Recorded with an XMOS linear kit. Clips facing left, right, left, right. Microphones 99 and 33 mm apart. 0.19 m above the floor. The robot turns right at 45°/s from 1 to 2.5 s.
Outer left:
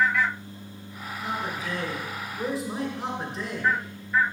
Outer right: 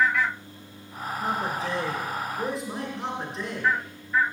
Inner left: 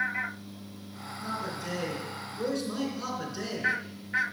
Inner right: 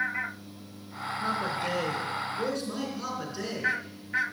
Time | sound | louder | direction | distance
1.2 | a man speaking | outer right 3 dB, inner right 5 dB | 60° right | 2.5 m